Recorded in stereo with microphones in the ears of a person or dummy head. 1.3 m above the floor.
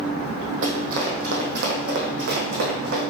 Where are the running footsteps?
40° right (ahead or behind), 3 m; by 3.0 s 65° right (ahead or behind), 4.5 m.